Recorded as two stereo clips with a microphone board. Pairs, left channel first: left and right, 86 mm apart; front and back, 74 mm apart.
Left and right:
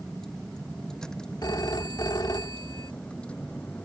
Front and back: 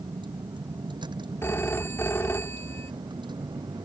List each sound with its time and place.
0.0 s a vehicle: 175° left; by 3.9 s 165° left
1.4 s a phone ringing: 55° left